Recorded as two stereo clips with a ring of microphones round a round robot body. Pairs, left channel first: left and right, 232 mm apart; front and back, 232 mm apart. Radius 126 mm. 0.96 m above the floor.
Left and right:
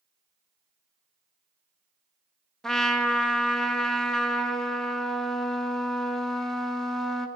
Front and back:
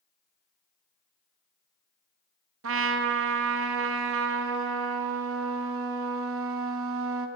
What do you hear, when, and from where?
2.6 s a trumpet: straight behind, 0.9 m